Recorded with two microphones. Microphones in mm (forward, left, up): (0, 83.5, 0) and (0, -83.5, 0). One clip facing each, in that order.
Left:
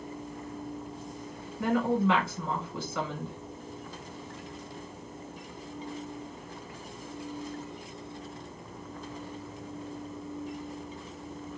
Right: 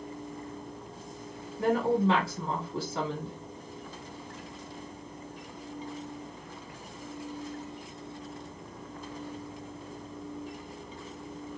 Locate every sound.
1.6 s a woman speaking: 35° right (ahead or behind), 1.9 m